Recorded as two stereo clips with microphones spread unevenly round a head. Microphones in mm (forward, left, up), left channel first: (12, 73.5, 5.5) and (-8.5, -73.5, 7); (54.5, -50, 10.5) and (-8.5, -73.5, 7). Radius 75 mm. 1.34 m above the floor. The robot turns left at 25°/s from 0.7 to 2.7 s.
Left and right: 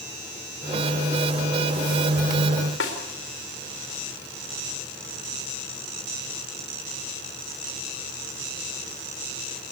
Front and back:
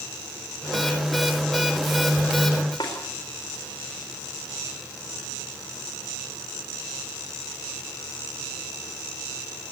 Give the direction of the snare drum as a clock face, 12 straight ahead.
9 o'clock.